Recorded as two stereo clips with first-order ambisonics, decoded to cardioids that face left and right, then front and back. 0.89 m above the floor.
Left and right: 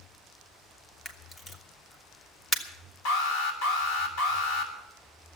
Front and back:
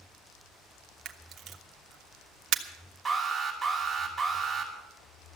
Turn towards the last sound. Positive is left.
turn(degrees=105)